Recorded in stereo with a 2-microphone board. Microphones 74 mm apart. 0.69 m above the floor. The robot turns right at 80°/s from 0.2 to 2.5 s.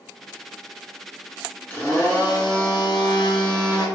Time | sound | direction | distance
1.7 | a blender | 20° left | 1.9 m